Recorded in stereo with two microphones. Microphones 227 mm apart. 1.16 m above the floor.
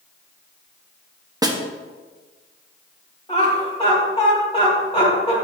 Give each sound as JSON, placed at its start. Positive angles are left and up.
{"t": 1.4, "sound": "a snare drum", "side_deg": -15, "distance_m": 0.7}
{"t": 3.3, "sound": "laughter", "side_deg": 25, "distance_m": 1.9}